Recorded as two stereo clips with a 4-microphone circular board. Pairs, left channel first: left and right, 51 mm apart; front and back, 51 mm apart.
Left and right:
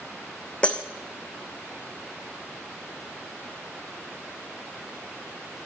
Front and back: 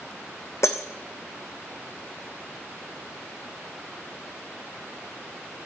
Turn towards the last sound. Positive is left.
turn(degrees=20)